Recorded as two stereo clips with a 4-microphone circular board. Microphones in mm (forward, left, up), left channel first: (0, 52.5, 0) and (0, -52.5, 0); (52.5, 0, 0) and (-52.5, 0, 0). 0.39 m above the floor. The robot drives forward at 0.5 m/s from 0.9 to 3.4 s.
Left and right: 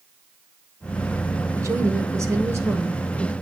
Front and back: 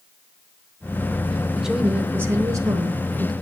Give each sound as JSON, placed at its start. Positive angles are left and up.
{"t": 1.6, "sound": "a woman speaking", "azimuth_deg": -95, "distance_m": 0.9}